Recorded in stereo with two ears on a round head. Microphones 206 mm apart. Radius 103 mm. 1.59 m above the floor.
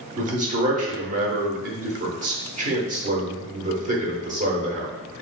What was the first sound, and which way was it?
A man speaking, 35° right (ahead or behind).